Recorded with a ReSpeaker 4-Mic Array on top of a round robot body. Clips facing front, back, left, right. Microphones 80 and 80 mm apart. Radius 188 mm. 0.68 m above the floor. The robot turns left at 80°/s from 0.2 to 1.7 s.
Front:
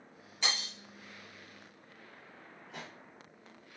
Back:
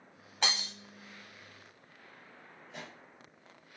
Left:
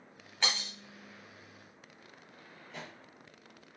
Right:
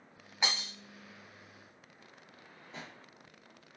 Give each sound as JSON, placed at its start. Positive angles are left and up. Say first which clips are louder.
{"t": 0.4, "sound": "breaking glass", "louder": "back 2 dB, even", "azimuth_deg": -165, "distance_m": 1.2}
{"t": 2.7, "sound": "a pop", "louder": "even, left 1 dB", "azimuth_deg": -35, "distance_m": 1.1}